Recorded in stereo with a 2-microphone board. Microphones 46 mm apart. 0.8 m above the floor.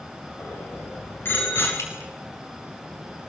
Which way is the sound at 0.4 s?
55° left (ahead or behind).